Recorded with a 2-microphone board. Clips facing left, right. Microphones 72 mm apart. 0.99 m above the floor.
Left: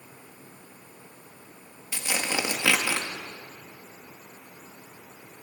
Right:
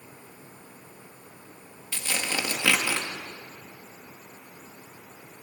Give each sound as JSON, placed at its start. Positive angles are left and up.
{"t": 1.9, "sound": "tearing paper", "side_deg": 15, "distance_m": 1.9}